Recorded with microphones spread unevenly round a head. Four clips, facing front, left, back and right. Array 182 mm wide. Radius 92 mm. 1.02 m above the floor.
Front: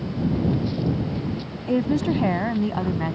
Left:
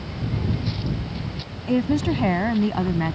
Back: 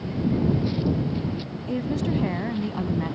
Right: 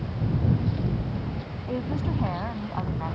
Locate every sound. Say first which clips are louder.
1.7 s a woman speaking: left 9 dB, front 5 dB; 35° left; by 3.1 s 45° left